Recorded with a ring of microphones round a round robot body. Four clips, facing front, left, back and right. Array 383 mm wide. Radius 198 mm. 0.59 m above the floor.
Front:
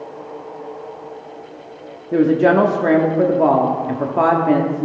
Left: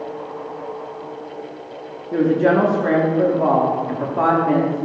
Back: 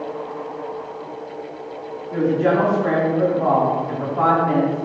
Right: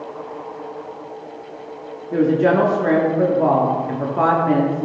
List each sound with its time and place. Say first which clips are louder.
2.1 s a woman speaking: even, front 5 dB; straight ahead, 1.4 m